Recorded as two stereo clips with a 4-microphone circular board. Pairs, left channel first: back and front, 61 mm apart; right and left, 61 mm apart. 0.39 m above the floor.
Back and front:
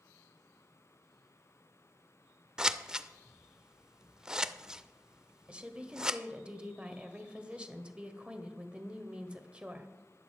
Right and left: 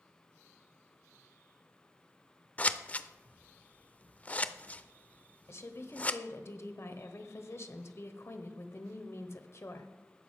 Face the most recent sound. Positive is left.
turn(degrees=-70)